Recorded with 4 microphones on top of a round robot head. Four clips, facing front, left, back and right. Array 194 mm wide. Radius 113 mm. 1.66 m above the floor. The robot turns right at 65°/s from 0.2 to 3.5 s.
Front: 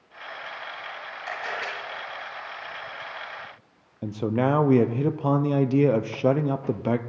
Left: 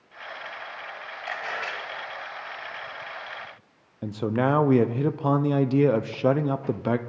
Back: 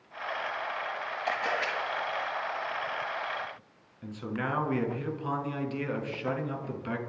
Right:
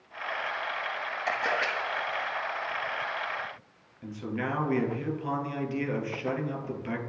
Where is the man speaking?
40° left, 0.8 m.